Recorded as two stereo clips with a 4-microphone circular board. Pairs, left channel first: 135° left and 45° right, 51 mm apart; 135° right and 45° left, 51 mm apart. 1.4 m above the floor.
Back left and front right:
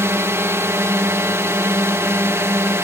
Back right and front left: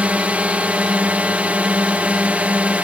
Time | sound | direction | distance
0.0 | a drone | 15° right | ?